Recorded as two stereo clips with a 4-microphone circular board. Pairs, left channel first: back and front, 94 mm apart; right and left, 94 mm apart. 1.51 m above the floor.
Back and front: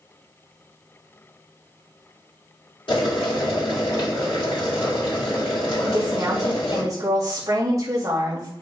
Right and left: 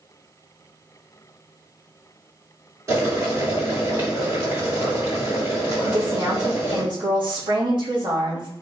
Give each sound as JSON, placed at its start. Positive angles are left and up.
{"t": 2.9, "sound": "boiling", "azimuth_deg": 150, "distance_m": 2.5}
{"t": 5.8, "sound": "a woman speaking", "azimuth_deg": 55, "distance_m": 1.4}